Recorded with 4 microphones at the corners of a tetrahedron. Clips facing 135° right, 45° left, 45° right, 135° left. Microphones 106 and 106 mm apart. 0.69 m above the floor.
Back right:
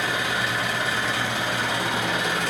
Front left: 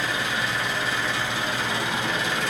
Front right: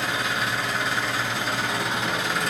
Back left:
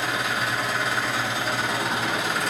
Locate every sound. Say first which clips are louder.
0.0 s an engine running: back right 1 dB, even; 140° right, 2.5 m